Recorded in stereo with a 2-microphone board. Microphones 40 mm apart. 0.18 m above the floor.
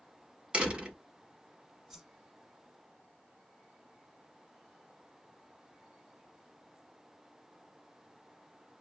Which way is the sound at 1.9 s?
5° right (ahead or behind).